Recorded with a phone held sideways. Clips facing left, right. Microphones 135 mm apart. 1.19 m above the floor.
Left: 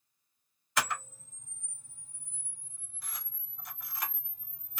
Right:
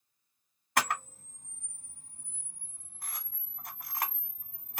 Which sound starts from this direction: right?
A camera shutter, at 0.8 s.